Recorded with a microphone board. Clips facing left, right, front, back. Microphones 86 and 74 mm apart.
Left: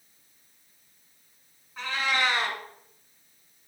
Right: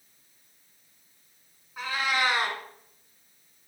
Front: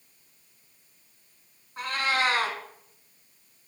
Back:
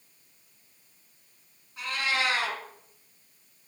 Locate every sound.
1.8 s a cat meowing: 15° right, 1.6 m